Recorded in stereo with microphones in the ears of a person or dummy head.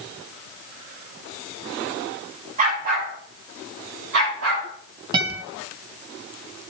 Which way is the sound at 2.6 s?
35° right (ahead or behind).